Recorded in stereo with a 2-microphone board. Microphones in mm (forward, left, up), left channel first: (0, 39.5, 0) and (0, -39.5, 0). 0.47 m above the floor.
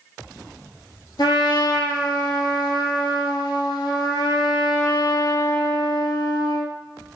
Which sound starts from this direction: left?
A trumpet, at 1.2 s.